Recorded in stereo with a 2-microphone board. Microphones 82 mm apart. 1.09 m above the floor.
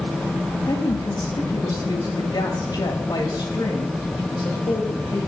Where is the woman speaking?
60° left (ahead or behind), 2 m.